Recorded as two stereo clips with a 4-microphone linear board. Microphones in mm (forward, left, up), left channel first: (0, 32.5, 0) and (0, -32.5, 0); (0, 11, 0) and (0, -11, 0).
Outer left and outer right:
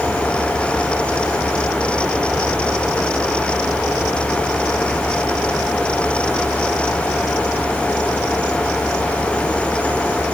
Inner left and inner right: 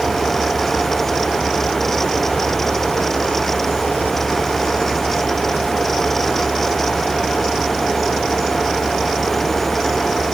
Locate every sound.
Only background noise.